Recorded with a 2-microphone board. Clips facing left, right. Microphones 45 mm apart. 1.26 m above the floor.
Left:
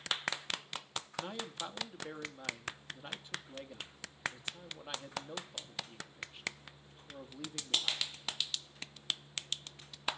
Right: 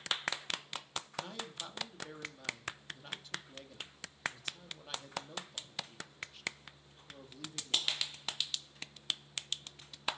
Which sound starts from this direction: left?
A man speaking, at 1.2 s.